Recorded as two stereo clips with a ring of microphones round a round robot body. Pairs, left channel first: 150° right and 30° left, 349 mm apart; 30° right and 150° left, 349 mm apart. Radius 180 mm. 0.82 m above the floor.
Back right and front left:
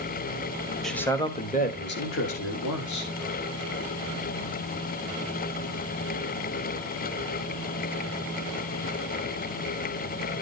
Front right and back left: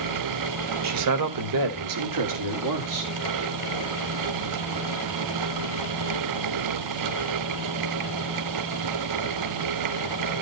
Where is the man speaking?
120° left, 1.4 m; by 3.1 s straight behind, 2 m.